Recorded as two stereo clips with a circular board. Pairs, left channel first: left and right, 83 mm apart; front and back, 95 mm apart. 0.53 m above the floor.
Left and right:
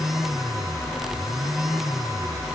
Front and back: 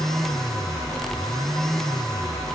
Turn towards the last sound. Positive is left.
No sound to turn to.